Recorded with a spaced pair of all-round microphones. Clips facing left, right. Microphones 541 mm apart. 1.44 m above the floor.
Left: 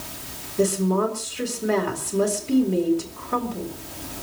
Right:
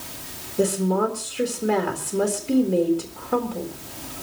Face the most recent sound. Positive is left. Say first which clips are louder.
# even
turn(degrees=-10)  # may be behind; listen again after turning